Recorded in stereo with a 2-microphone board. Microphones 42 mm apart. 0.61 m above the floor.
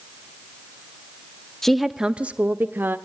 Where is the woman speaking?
10° left (ahead or behind), 0.8 m; by 3.0 s 55° right (ahead or behind), 1.4 m.